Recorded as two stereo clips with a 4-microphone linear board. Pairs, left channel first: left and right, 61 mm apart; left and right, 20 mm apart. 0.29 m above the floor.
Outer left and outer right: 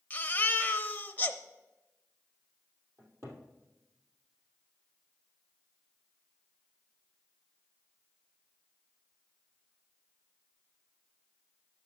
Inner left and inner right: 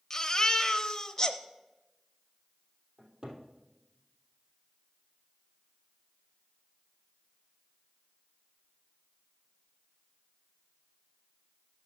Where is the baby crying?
30° left (ahead or behind), 0.7 m.